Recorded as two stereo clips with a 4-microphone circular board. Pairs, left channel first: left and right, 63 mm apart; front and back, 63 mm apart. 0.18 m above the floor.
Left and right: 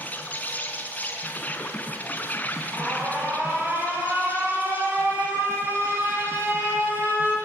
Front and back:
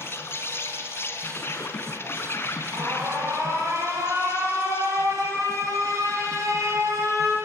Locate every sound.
0.0 s an insect: 35° left, 2.5 m
2.7 s an alarm: 145° right, 6 m